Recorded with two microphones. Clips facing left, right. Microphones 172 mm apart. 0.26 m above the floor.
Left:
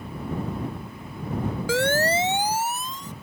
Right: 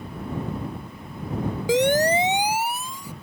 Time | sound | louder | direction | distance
1.7 | a siren | right 4 dB | 20° right (ahead or behind) | ?